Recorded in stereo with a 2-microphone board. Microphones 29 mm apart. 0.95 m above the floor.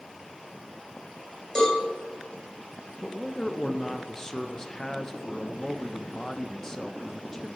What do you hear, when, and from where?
1.6 s a cowbell: 20° left (ahead or behind), 3 m
3.0 s a man speaking: 15° left (ahead or behind), 0.6 m